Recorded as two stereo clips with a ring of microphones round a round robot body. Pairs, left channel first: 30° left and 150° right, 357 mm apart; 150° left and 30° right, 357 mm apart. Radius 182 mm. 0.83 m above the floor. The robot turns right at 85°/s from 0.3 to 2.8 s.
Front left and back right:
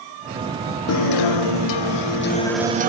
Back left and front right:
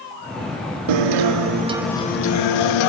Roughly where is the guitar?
Ahead right.